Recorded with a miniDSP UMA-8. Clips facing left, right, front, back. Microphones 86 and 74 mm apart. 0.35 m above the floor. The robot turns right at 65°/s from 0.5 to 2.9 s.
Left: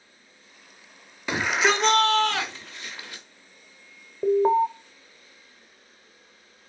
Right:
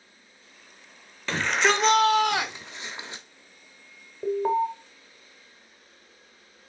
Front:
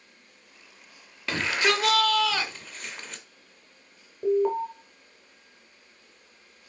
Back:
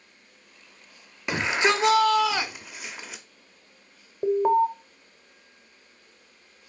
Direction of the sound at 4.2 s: 140° left.